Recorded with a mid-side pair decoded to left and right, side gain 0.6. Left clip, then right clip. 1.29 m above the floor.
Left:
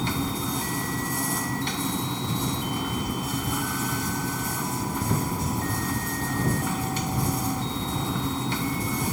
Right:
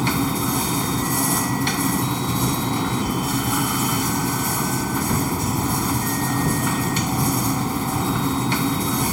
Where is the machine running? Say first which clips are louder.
Right 6 dB; 35° right.